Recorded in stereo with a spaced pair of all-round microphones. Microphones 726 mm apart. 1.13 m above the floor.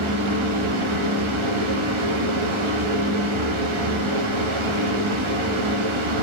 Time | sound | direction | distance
0.0 | a fan | 45° right (ahead or behind) | 0.8 m